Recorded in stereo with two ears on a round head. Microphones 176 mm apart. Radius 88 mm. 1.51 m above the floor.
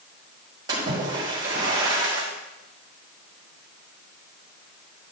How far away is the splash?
About 5 m.